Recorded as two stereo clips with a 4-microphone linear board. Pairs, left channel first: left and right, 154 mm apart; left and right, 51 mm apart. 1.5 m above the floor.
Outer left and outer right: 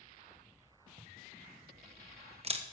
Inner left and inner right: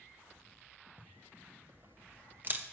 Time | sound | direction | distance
1.0 | a camera shutter | 40° right (ahead or behind) | 1.1 m